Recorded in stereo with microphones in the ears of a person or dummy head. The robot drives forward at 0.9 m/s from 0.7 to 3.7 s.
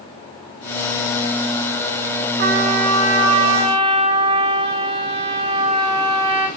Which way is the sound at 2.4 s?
50° right (ahead or behind).